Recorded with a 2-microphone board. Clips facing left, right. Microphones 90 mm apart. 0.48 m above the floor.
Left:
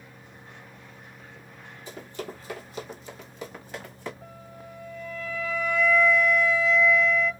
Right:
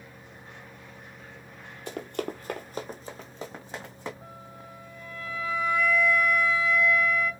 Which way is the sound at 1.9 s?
65° right (ahead or behind).